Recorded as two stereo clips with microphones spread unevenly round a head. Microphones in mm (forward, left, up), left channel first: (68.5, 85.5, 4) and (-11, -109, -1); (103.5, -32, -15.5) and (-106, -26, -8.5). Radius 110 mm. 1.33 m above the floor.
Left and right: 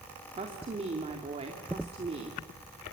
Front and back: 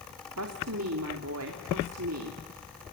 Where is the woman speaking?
175° right, 2.5 m.